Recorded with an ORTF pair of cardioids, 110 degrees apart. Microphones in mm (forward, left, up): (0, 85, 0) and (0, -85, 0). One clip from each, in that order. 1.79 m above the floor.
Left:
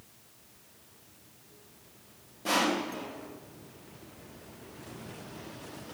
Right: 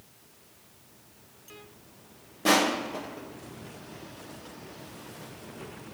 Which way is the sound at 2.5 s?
55° right.